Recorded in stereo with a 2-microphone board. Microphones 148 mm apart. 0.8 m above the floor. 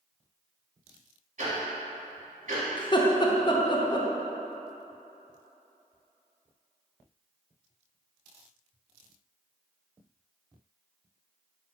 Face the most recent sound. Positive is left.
turn(degrees=30)  # may be behind; listen again after turning